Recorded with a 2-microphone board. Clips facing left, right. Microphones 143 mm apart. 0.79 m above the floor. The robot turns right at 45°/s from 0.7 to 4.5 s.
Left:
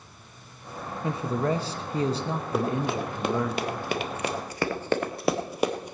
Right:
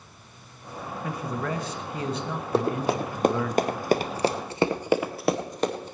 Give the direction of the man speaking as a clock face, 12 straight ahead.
10 o'clock.